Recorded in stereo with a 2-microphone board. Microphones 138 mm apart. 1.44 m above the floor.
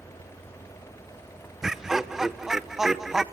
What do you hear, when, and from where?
1.6 s laughter: 5° right (ahead or behind), 0.9 m